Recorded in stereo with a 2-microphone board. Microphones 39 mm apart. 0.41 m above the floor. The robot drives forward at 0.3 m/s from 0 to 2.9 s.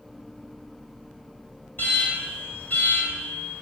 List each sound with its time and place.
1.8 s an alarm: 55° left (ahead or behind), 1.0 m